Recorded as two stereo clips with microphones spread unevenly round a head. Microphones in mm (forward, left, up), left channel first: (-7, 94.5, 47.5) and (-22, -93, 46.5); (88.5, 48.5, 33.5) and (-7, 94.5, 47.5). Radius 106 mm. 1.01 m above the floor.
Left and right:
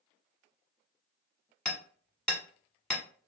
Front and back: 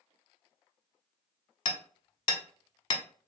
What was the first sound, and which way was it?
Hammering, straight ahead.